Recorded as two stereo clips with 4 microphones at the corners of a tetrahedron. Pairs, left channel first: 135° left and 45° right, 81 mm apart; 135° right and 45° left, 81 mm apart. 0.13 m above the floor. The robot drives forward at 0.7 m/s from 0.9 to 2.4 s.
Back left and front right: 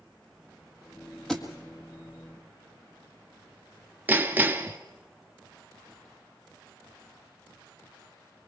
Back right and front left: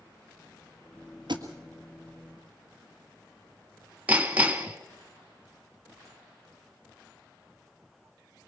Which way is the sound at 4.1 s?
5° right.